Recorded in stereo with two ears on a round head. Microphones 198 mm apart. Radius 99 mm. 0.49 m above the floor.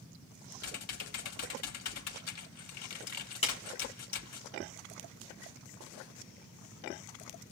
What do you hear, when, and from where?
0.6 s typing on a keyboard: 80° left, 1.0 m
3.4 s a clap: 30° left (ahead or behind), 4 m